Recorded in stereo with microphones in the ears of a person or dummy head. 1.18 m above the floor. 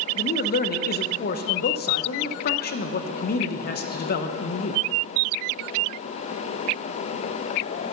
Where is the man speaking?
45° left (ahead or behind), 0.7 m.